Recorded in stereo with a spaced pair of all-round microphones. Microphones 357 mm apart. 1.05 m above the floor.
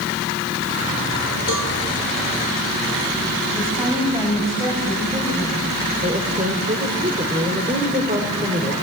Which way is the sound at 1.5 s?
80° right.